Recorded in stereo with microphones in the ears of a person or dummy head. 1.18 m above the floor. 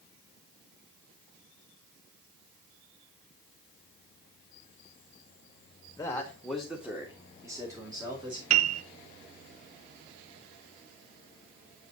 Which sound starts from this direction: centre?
A man speaking, at 6.0 s.